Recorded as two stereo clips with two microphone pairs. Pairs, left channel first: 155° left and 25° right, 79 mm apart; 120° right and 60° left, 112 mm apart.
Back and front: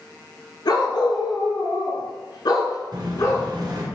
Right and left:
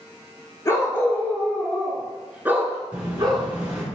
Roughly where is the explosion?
Ahead.